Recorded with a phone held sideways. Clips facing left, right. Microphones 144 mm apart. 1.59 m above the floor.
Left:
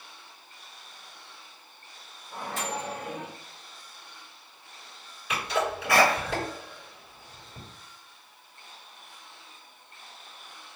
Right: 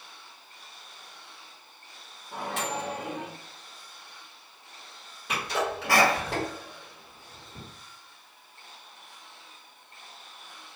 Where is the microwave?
70° right (ahead or behind), 1.3 m.